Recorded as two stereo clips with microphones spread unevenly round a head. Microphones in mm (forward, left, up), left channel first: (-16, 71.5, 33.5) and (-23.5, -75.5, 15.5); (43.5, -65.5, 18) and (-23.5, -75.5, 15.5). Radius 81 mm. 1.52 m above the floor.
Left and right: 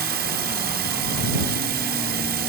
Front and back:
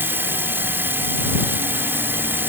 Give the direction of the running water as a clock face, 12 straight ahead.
4 o'clock.